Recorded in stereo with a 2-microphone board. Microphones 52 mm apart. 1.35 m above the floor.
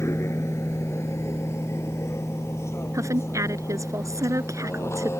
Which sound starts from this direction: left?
A vehicle, at 0.0 s.